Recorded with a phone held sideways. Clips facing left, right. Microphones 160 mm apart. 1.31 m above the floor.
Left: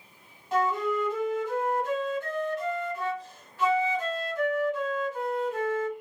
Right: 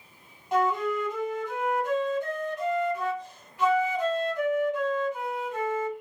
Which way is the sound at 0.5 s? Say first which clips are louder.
Right 1 dB; 15° right (ahead or behind).